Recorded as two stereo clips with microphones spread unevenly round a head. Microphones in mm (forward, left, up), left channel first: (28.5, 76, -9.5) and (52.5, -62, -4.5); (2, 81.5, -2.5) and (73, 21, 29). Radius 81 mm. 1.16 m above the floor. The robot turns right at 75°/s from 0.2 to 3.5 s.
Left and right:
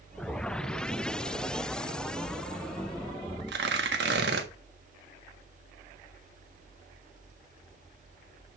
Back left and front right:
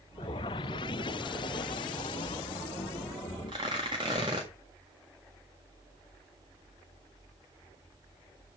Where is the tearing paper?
105° right, 1.6 m.